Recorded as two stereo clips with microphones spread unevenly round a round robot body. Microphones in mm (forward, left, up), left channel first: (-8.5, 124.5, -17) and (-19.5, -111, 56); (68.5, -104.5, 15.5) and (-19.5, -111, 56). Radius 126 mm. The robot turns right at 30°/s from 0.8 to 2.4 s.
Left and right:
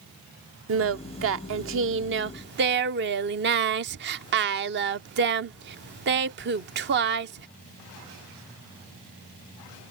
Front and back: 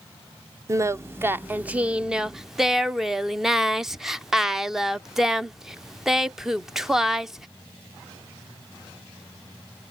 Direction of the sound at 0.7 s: 100° right.